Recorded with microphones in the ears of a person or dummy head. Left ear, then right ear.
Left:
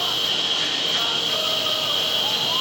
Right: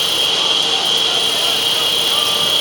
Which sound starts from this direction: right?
An insect, at 0.0 s.